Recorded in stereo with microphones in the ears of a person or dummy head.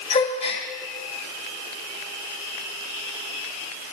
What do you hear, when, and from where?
0.1 s a gasp: 30° left (ahead or behind), 1.9 m